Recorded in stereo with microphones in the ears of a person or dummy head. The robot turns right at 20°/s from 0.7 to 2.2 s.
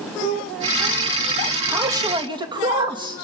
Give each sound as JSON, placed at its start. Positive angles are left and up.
{"t": 1.7, "sound": "a man speaking", "side_deg": -5, "distance_m": 2.0}